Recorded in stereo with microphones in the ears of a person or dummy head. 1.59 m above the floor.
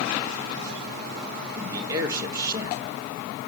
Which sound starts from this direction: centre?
A man speaking, at 1.6 s.